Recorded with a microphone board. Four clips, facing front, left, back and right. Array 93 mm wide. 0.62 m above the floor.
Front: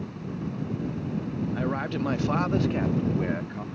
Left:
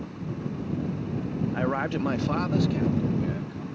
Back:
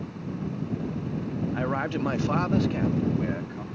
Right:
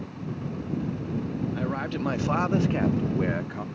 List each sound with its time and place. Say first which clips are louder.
1.5 s a man speaking: left 3 dB, back 2 dB; 120° left; by 3.6 s 75° right